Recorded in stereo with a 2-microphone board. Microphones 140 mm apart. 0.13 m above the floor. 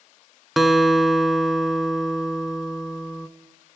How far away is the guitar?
About 0.5 m.